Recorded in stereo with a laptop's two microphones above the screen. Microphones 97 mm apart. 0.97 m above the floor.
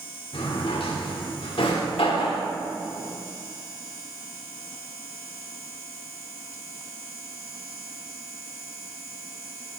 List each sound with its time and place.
0.3 s a drawer: 65° left (ahead or behind), 1.5 m